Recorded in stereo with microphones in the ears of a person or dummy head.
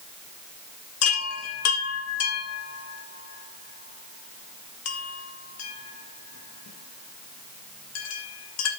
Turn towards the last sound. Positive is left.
turn(degrees=85)